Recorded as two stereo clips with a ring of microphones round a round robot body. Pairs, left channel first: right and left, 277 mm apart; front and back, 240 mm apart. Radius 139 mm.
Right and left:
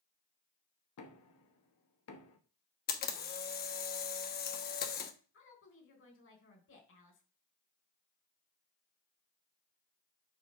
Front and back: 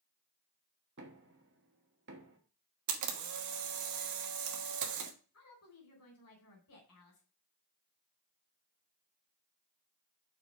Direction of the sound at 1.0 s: 130° right.